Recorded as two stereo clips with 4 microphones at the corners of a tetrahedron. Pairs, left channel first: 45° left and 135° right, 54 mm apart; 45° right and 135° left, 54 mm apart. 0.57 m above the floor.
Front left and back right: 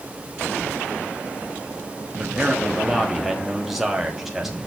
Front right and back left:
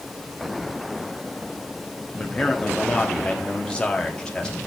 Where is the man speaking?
55° right, 1.0 m.